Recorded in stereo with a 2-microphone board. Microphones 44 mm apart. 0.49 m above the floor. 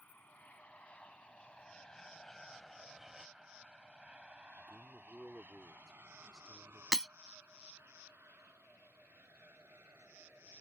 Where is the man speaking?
20° right (ahead or behind).